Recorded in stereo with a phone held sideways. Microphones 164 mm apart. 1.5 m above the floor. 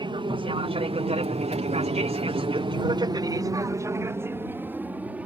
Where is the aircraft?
30° right (ahead or behind); by 5.3 s 10° right (ahead or behind).